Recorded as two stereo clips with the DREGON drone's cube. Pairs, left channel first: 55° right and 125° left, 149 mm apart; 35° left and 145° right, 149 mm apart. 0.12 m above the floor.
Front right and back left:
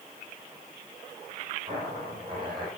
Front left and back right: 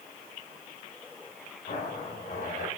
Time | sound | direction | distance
1.7 | a zipper | 70° left | 9 m